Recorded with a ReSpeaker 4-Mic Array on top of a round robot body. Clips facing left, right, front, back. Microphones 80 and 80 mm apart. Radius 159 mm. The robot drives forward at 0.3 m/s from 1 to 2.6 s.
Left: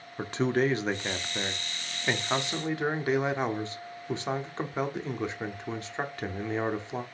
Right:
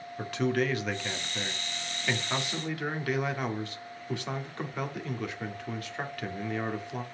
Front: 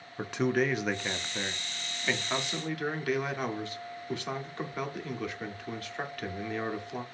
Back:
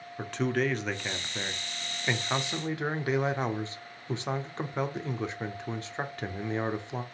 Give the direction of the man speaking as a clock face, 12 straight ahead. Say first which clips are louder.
Left 2 dB, front 1 dB; 10 o'clock.